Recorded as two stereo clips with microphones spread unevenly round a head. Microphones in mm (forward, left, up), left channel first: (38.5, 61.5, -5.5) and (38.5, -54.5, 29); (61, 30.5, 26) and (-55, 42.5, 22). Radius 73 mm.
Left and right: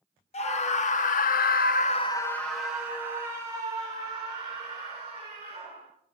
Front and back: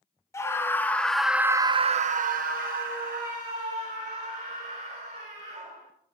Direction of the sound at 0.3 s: 60° left.